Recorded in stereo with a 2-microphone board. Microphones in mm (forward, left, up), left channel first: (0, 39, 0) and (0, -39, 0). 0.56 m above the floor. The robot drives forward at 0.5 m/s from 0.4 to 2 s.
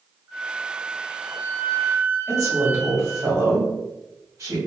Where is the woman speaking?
40° right (ahead or behind), 1.8 m.